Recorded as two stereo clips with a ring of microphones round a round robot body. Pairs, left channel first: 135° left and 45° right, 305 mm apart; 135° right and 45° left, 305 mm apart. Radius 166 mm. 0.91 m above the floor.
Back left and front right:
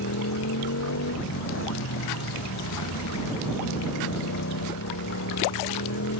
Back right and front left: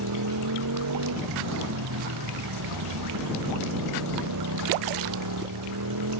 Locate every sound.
0.0 s a motorcycle: 85° left